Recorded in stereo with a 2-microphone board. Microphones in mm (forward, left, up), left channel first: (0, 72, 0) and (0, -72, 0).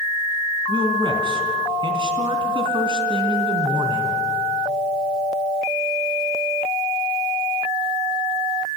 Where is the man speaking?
35° right (ahead or behind), 2.5 m.